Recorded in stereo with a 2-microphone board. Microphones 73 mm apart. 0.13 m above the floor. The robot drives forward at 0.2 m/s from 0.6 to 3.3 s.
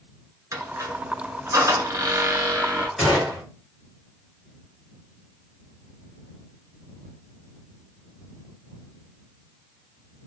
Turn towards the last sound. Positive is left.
turn(degrees=-5)  # may be behind; listen again after turning